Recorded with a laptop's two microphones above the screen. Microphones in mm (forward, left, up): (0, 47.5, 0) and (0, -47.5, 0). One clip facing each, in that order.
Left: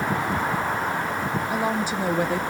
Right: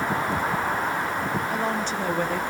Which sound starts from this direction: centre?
A woman speaking, at 1.5 s.